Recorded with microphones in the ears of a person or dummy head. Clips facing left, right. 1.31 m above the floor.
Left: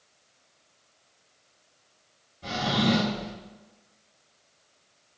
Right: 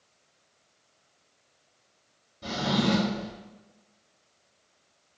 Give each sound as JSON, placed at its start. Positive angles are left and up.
{"t": 2.4, "sound": "a drawer", "side_deg": -75, "distance_m": 1.8}